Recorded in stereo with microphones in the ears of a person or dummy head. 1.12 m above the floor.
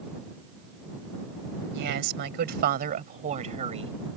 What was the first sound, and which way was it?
A woman speaking, 60° right (ahead or behind).